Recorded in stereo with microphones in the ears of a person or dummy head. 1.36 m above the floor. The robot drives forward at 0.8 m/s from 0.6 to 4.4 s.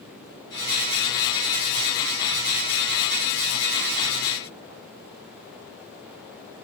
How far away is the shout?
I don't hear a shout.